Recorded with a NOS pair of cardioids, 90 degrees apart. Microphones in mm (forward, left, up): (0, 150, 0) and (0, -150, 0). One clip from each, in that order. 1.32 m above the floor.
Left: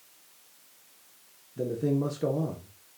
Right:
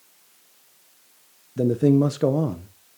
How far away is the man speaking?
About 0.7 m.